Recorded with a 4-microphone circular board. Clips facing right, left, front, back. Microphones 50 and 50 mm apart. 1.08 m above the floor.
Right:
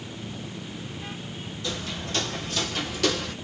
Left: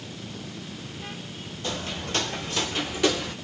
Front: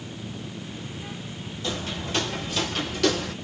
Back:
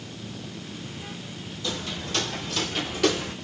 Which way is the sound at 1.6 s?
50° left.